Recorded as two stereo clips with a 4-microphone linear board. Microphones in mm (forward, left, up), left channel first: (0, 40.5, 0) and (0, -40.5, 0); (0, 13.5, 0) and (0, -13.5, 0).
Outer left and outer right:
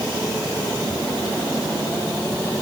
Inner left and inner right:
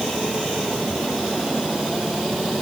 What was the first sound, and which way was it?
Only background noise.